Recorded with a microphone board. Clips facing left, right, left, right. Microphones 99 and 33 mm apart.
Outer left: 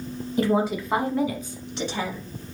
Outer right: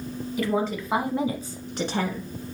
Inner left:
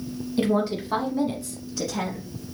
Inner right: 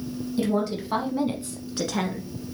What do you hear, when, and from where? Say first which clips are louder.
0.4 s a woman speaking: outer left 4 dB, inner left 2 dB; 35° left (ahead or behind), 1.2 m; by 2.3 s 55° right (ahead or behind), 2 m